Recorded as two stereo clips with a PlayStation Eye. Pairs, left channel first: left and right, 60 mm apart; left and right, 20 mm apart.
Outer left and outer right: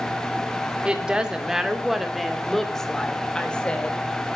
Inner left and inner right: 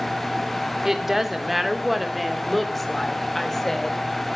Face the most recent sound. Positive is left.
turn(degrees=20)  # may be behind; listen again after turning